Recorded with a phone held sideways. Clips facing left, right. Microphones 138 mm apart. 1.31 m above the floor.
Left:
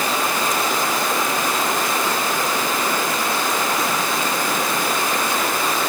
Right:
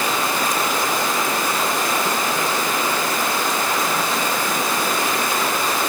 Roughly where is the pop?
No pop in this recording.